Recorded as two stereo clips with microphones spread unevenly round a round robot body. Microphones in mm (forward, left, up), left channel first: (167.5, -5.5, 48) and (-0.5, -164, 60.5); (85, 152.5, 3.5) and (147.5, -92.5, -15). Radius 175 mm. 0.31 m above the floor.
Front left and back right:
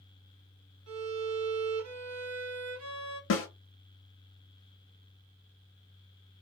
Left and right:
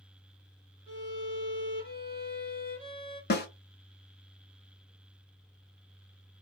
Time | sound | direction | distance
0.9 | a violin | 150° right | 1.0 m
3.3 | a snare drum | 55° left | 0.8 m